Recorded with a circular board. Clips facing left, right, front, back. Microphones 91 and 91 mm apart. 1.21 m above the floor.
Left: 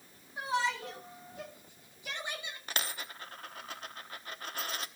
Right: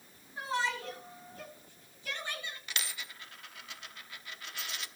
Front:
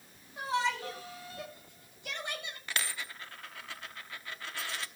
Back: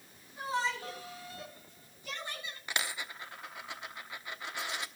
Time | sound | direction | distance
0.4 | a shout | 15° left | 9 m
2.7 | a dropped coin | 115° left | 0.9 m